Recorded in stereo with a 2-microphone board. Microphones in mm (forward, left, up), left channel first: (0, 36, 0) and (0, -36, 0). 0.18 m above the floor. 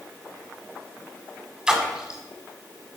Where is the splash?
10° right (ahead or behind), 0.9 m.